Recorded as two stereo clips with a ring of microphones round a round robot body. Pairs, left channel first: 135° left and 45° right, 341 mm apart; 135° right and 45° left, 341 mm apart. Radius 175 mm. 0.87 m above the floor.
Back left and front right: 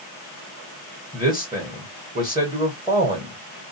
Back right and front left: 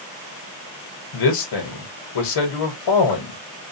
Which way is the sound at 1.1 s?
125° right.